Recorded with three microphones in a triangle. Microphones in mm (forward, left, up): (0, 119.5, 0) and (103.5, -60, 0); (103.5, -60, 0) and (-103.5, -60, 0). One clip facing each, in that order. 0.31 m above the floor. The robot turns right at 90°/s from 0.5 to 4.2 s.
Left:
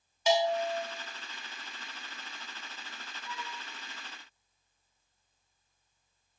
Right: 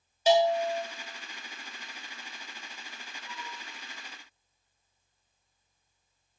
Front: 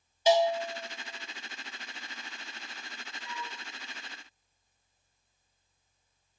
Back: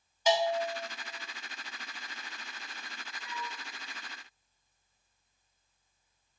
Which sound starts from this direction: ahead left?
A flute, at 3.2 s.